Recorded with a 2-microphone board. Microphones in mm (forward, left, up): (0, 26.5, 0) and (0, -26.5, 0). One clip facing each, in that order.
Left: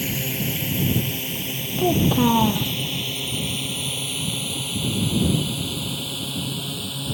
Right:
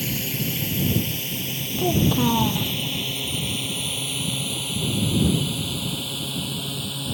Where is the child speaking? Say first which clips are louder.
Left 2 dB; 15° left (ahead or behind).